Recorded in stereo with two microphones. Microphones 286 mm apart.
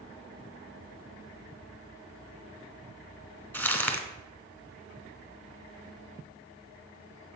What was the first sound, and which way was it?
Crumpling, 5° left (ahead or behind).